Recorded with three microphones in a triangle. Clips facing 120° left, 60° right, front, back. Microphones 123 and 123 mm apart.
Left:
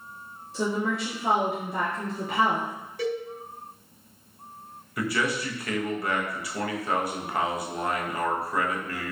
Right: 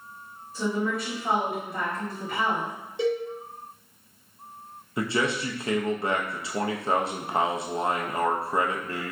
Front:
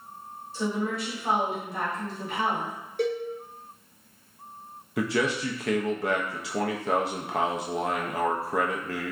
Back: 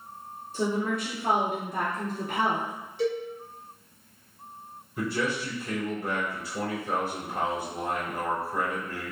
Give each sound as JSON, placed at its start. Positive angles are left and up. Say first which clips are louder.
{"t": 0.5, "sound": "a woman speaking", "louder": "even, back 1 dB", "azimuth_deg": 140, "distance_m": 1.0}
{"t": 3.0, "sound": "a cowbell", "louder": "right 4 dB, even", "azimuth_deg": 5, "distance_m": 0.6}
{"t": 5.0, "sound": "a man speaking", "louder": "right 1 dB, front 3 dB", "azimuth_deg": 5, "distance_m": 0.6}